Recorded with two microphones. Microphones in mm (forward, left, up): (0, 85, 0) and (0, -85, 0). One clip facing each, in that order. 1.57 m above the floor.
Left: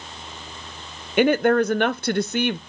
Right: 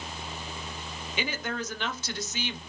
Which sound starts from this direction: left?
A woman speaking, at 1.2 s.